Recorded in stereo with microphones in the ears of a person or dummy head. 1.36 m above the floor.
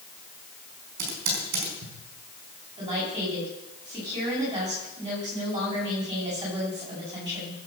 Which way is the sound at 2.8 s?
30° right (ahead or behind).